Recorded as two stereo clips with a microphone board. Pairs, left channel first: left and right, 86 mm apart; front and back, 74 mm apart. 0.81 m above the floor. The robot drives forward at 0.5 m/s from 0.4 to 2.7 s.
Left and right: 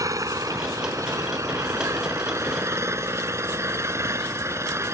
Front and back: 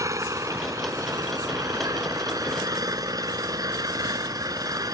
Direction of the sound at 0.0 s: 140° right.